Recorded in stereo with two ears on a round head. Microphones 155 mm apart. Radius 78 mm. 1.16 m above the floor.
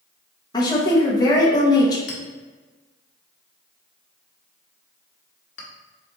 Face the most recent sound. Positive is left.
turn(degrees=70)  # may be behind; listen again after turning